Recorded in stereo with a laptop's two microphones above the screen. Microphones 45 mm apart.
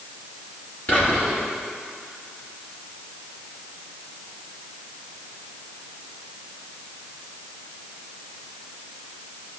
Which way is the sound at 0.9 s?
55° left (ahead or behind).